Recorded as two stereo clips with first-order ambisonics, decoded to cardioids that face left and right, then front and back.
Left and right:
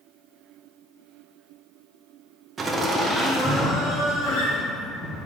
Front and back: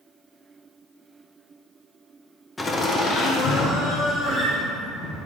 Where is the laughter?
65° right, 0.7 m; by 5.2 s 25° left, 1.6 m.